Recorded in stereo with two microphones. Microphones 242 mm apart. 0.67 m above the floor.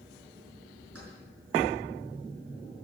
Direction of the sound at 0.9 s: 70° right (ahead or behind).